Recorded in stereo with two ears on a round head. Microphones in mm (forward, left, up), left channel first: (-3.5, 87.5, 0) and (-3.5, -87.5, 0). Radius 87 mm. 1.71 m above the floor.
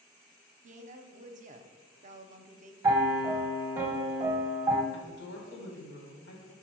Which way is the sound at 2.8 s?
15° right (ahead or behind).